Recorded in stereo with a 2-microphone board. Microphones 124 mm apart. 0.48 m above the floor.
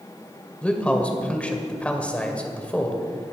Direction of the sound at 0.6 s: 10° left (ahead or behind).